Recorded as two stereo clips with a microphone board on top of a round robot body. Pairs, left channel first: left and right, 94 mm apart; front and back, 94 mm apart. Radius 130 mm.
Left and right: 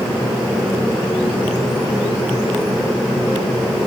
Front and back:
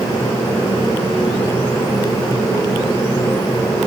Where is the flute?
I don't hear a flute.